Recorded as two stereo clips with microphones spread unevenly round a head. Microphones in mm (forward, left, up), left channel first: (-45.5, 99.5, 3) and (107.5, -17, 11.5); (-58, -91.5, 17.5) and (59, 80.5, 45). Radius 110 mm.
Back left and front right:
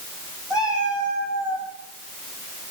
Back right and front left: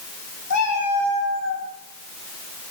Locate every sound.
0.5 s a cat meowing: 125° right, 7 m; by 1.6 s 120° right, 8 m